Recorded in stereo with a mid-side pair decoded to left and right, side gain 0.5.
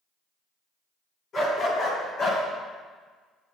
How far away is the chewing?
I don't hear chewing.